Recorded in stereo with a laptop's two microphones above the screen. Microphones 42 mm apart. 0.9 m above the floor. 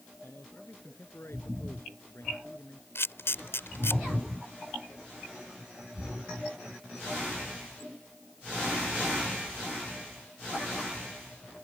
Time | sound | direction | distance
0.2 | a man speaking | 70° left (ahead or behind) | ?
3.0 | a camera shutter | 70° left (ahead or behind) | ?